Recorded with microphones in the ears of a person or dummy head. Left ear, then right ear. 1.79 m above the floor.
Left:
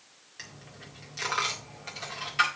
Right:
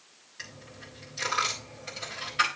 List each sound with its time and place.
0.4 s a dropped coin: 25° left (ahead or behind), 1.9 m